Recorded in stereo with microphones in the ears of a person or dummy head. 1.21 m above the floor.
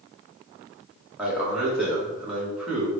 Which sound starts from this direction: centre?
A man speaking, at 1.2 s.